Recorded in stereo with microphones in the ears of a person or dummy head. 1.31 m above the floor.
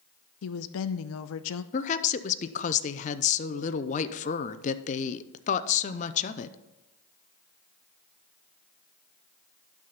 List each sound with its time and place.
0.4 s a woman speaking: 80° left, 0.6 m
1.7 s a woman speaking: 35° left (ahead or behind), 0.6 m